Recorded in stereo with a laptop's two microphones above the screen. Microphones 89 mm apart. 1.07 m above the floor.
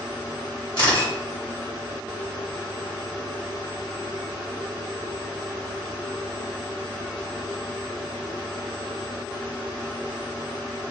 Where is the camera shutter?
65° left (ahead or behind), 1.7 m.